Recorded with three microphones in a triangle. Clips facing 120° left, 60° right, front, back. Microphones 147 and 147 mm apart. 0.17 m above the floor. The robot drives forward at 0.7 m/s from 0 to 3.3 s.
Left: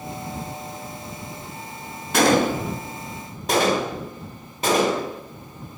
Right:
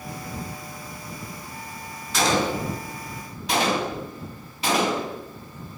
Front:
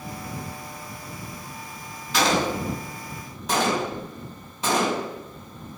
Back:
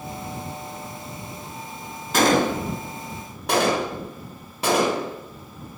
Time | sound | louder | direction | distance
2.1 | a gunshot | left 5 dB, back 4 dB | 145° left | 0.7 m